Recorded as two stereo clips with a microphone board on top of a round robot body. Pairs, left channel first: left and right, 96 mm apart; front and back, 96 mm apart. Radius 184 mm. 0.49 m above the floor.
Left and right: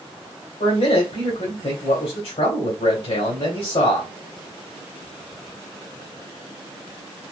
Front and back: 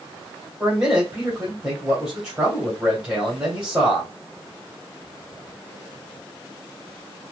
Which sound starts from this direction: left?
A man speaking, at 0.6 s.